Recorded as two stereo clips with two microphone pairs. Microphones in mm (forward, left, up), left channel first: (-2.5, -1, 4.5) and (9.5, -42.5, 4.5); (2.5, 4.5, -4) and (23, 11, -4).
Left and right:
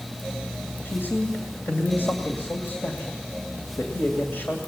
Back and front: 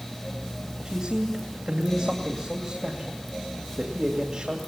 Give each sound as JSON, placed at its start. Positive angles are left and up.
{"t": 0.8, "sound": "a man speaking", "azimuth_deg": 65, "distance_m": 2.5}